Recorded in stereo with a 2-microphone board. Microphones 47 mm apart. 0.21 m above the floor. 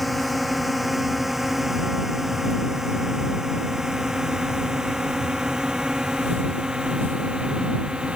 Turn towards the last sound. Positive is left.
turn(degrees=-20)  # may be behind; listen again after turning